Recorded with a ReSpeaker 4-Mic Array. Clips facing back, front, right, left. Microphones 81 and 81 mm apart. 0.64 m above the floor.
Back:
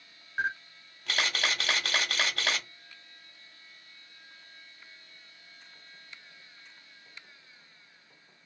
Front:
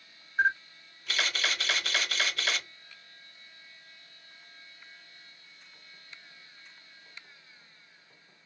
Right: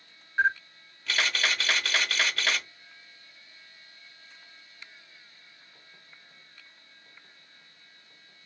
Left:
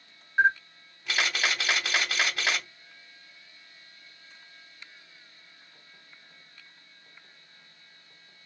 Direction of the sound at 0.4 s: 165° left.